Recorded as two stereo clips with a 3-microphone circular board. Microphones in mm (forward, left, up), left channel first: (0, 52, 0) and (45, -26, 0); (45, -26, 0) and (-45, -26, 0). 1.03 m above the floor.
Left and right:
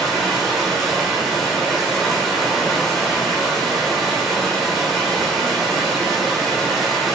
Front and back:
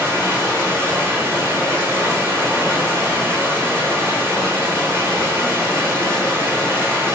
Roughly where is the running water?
Behind right.